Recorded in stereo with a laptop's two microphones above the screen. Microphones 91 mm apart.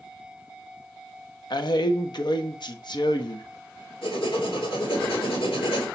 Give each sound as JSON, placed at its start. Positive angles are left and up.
{"t": 1.5, "sound": "a man speaking", "side_deg": 55, "distance_m": 0.9}
{"t": 4.0, "sound": "writing", "side_deg": 65, "distance_m": 3.0}